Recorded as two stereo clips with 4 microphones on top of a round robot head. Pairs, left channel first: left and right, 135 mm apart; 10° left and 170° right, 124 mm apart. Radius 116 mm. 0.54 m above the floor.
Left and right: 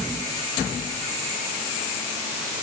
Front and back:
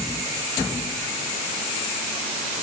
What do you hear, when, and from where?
Only background noise.